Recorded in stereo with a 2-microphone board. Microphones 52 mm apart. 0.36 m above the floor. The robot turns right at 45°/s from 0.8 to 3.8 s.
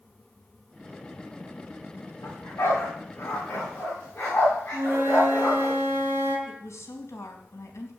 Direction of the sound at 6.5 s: 65° left (ahead or behind).